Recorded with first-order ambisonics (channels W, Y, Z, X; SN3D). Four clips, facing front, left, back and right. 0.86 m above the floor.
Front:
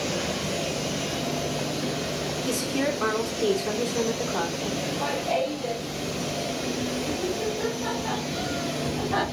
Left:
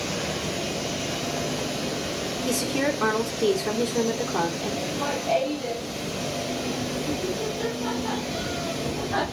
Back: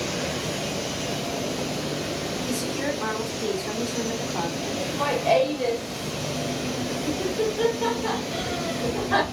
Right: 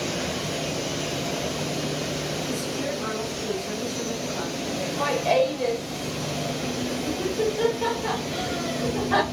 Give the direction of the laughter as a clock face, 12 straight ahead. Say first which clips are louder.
Right 6 dB, back 7 dB; 5 o'clock.